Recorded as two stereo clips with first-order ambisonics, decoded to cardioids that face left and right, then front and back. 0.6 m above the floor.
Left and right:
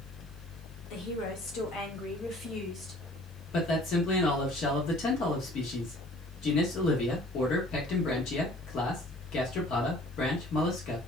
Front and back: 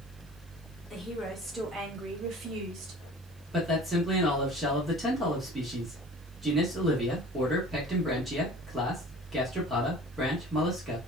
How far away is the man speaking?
About 1.1 m.